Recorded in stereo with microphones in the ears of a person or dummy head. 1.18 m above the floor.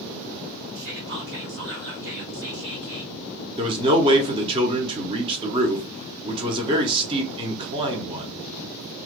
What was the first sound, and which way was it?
Whispering, 45° right (ahead or behind).